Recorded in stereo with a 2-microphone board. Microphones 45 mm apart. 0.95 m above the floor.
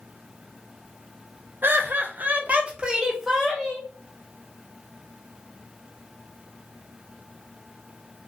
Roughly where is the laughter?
Right.